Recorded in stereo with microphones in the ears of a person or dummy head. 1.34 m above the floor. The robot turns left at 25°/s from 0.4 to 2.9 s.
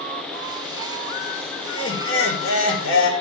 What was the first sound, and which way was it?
Laughter, 110° left.